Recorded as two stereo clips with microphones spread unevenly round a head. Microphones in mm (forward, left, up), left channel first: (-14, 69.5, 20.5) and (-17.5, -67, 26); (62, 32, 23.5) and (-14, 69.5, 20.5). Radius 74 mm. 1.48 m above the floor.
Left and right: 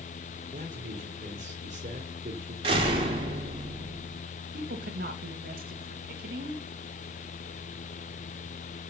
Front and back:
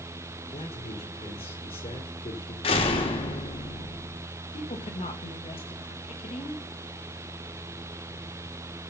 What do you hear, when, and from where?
0.5 s a man speaking: 50° right, 4 m
2.6 s a door slam: 35° right, 3 m
4.5 s a woman speaking: 60° right, 2 m